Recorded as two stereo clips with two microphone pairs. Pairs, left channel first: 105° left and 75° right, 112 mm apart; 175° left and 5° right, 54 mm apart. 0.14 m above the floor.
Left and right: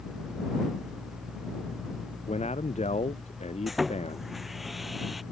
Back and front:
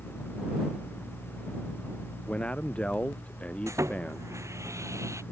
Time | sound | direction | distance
2.3 | a man speaking | 105° left | ?
3.7 | sawing | 15° left | ?